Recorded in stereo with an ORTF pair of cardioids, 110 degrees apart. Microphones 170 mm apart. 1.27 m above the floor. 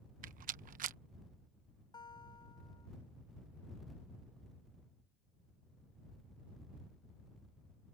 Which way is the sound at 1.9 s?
25° left.